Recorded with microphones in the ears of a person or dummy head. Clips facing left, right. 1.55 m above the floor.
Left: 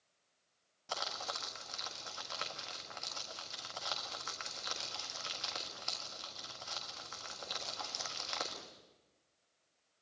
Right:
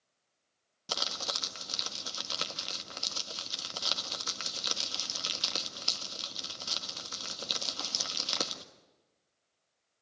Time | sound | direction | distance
0.9 | crumpling | 50° right (ahead or behind) | 1.5 m